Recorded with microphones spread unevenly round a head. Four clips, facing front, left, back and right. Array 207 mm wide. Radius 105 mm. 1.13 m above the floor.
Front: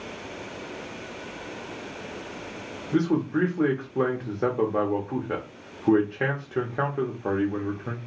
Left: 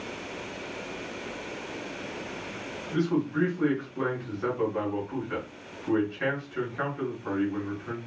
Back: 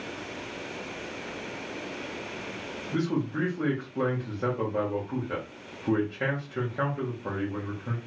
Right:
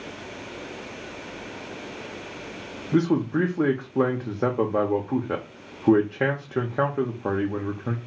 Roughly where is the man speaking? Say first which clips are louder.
Right 5 dB, front 5 dB; right.